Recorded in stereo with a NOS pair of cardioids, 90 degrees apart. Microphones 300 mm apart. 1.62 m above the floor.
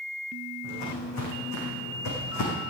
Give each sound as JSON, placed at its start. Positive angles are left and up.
{"t": 0.6, "sound": "footsteps", "azimuth_deg": 70, "distance_m": 6.5}